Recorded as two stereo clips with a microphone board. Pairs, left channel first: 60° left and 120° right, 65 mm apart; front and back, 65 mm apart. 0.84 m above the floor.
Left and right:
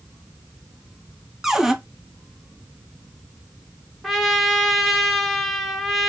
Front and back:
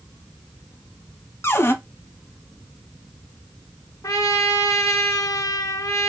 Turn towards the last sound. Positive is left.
turn(degrees=-30)